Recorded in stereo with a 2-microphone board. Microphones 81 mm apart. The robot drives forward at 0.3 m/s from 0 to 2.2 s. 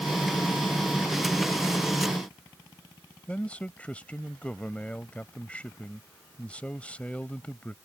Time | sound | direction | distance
3.3 | a man speaking | 15° left (ahead or behind) | ?